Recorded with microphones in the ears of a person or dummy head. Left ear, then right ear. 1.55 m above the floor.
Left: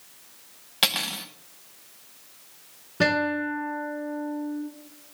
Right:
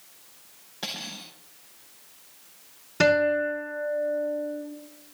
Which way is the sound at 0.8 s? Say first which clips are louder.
Left 10 dB; 25° left (ahead or behind).